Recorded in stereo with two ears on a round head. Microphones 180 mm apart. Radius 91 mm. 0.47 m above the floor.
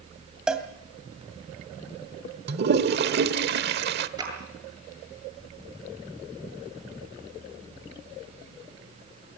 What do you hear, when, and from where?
0.5 s a cowbell: 5° right (ahead or behind), 2 m
2.5 s a toilet flushing: 55° right (ahead or behind), 1.2 m
4.2 s a clap: 20° right (ahead or behind), 8 m